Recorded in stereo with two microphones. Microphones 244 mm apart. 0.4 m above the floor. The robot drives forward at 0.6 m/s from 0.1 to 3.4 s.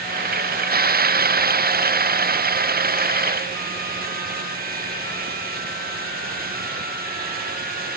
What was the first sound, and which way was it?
Only background noise.